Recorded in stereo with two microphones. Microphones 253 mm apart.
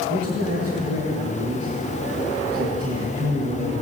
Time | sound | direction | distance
0.1 | a man speaking | 75° right (ahead or behind) | 4 m